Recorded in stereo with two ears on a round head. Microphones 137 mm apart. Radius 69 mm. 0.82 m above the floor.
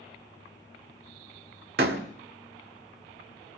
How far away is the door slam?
About 1.8 m.